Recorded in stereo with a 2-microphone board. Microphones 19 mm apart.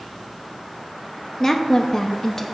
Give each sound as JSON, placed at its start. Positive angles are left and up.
{"t": 1.4, "sound": "a woman speaking", "side_deg": 20, "distance_m": 0.7}